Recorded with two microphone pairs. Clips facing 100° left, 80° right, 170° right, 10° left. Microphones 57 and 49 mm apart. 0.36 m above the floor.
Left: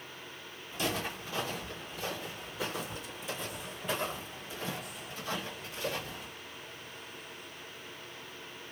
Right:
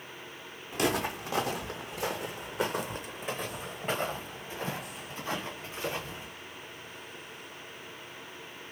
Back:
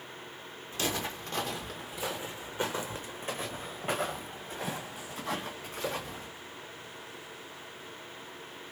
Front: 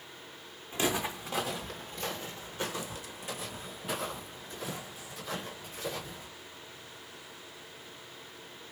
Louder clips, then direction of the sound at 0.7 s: Right 5 dB, front 2 dB; 60° right.